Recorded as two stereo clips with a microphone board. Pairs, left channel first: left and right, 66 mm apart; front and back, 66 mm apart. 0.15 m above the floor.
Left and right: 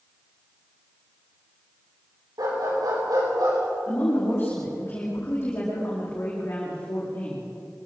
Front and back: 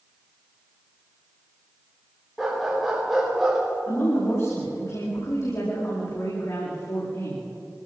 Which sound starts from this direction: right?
A dog barking, at 2.4 s.